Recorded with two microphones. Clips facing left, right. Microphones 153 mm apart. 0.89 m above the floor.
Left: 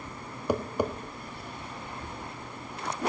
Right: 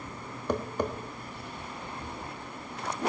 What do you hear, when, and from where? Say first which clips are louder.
0.5 s tapping: left 2 dB; 10° left (ahead or behind), 1.2 m